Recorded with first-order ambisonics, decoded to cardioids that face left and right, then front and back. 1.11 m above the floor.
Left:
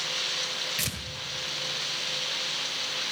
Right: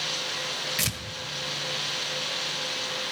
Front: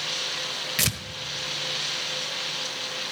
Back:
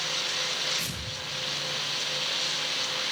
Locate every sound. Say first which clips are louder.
0.8 s tearing paper: right 2 dB, front 7 dB; 15° right, 1.4 m